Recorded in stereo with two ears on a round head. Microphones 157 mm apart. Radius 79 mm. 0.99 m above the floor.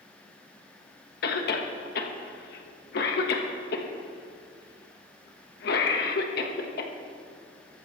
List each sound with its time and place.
1.2 s a cough: 60° left (ahead or behind), 1.4 m